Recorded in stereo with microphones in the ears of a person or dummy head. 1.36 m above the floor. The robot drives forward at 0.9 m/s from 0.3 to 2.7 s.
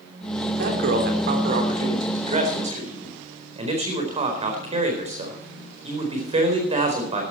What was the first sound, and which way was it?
A man speaking, 60° right (ahead or behind).